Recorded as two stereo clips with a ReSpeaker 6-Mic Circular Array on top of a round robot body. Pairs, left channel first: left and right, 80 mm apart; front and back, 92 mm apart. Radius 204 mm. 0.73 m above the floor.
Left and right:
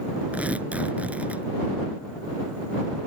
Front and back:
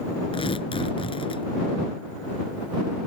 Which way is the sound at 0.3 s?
20° right.